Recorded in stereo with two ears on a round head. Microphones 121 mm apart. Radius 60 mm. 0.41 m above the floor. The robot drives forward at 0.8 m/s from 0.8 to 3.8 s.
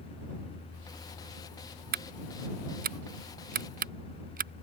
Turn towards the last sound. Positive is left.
turn(degrees=-70)  # may be behind; listen again after turning